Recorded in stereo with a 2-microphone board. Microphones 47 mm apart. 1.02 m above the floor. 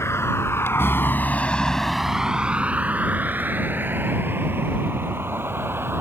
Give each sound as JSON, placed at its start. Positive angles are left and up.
{"t": 0.0, "sound": "a vehicle", "side_deg": 80}